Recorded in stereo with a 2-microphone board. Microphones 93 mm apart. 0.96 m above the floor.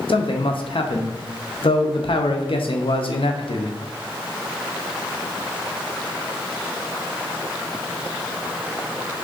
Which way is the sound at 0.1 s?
70° left (ahead or behind).